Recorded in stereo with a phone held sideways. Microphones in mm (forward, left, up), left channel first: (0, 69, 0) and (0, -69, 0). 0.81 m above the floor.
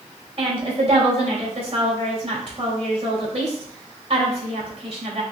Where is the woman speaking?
50° right (ahead or behind), 2 m.